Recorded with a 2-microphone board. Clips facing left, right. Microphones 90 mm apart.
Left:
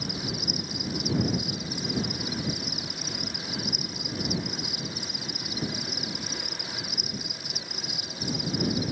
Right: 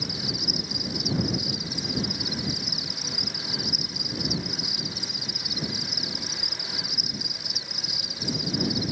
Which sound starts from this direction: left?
An insect, at 0.0 s.